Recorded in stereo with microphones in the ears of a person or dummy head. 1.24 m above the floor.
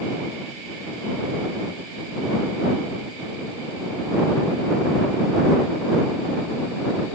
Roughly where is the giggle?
No giggle in this recording.